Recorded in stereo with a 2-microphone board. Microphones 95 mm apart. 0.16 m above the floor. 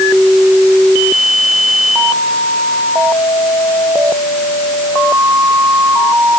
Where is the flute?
No flute in this recording.